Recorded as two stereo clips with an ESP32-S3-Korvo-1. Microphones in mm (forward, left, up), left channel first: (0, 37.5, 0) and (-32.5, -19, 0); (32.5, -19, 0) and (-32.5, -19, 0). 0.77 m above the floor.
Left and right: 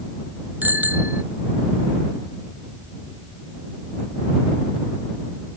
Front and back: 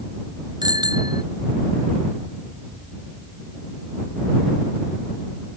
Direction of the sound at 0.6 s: 175° left.